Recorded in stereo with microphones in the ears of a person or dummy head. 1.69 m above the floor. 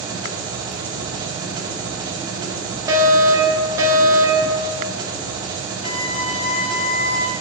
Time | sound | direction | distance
0.0 | an engine running | 25° right (ahead or behind) | 1.6 m
2.9 | a fire alarm | 15° right (ahead or behind) | 1.8 m
5.8 | a violin | 35° left (ahead or behind) | 1.2 m